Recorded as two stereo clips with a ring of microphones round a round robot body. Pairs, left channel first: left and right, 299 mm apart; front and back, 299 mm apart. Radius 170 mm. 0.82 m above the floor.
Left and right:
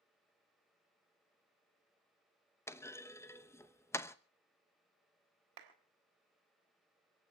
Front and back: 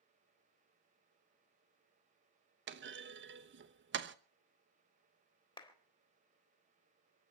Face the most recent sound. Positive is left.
turn(degrees=-75)